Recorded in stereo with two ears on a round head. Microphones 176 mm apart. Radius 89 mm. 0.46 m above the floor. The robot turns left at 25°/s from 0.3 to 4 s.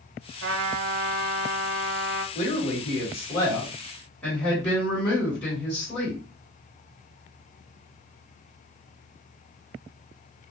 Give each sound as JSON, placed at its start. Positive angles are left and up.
{"t": 0.4, "sound": "a trumpet", "azimuth_deg": -70, "distance_m": 0.9}
{"t": 2.4, "sound": "a woman speaking", "azimuth_deg": 50, "distance_m": 2.5}